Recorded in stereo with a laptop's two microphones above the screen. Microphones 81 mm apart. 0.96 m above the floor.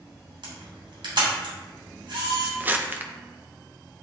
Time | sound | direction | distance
0.4 | a camera shutter | 85° right | 3 m
2.6 | crumpling | 20° right (ahead or behind) | 0.5 m